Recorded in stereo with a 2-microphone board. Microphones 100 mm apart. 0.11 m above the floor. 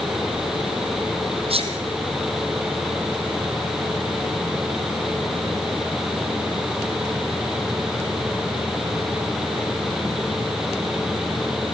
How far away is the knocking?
I don't hear knocking.